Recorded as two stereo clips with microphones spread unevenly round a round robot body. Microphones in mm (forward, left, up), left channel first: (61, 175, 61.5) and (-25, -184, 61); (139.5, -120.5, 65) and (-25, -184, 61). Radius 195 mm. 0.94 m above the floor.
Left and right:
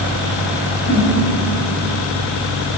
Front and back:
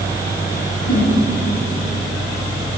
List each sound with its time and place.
0.8 s a whoosh: 20° left, 3.5 m